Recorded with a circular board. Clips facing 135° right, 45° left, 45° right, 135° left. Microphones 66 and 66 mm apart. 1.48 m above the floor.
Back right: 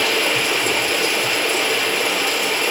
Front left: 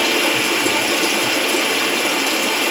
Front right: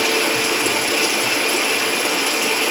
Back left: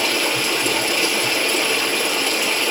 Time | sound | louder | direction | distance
0.0 | running water | front left 2 dB, front right 2 dB | 35° left | 3.5 m